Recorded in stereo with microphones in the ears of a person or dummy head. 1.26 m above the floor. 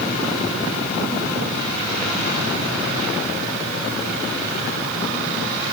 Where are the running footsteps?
No running footsteps in this recording.